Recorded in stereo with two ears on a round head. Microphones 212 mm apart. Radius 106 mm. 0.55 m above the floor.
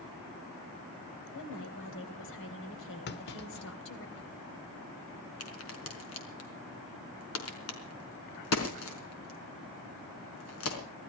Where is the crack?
60° left (ahead or behind), 4.5 m.